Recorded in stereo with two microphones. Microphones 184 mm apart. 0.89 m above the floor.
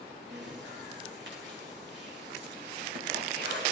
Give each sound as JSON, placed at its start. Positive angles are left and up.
{"t": 0.3, "sound": "breathing", "side_deg": -85, "distance_m": 3.5}